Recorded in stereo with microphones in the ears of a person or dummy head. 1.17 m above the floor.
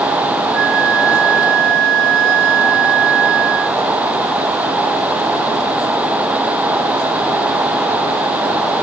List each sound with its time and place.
0.5 s a flute: 65° right (ahead or behind)